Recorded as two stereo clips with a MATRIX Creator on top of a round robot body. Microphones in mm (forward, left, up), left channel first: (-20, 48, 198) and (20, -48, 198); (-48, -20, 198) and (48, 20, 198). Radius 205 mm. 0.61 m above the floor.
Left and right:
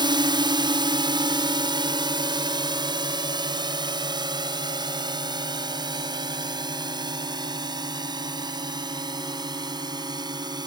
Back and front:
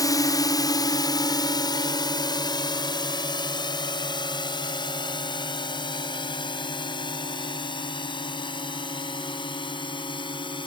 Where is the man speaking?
No man speaking in this recording.